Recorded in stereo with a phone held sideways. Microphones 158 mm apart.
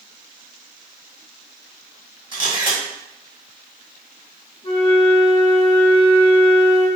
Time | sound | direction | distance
2.3 | a camera shutter | 30° right (ahead or behind) | 1.0 m
4.6 | a flute | 30° left (ahead or behind) | 1.7 m